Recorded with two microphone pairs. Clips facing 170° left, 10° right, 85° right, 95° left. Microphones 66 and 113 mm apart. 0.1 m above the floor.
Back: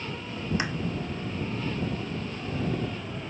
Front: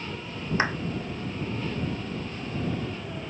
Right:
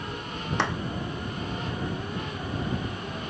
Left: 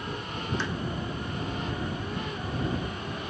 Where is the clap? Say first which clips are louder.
Front 5 dB, right 9 dB; 70° right.